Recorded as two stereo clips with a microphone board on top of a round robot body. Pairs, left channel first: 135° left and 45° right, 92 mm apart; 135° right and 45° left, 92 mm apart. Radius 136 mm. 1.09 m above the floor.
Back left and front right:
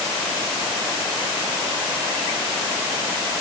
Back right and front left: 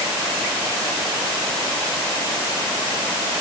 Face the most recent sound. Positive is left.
No sound to turn to.